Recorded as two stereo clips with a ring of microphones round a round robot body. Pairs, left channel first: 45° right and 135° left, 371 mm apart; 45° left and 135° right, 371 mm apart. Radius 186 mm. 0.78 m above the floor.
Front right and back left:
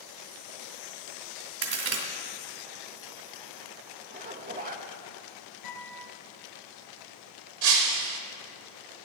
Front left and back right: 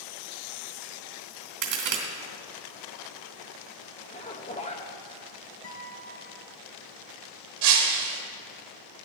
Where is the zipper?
95° left, 1.1 m.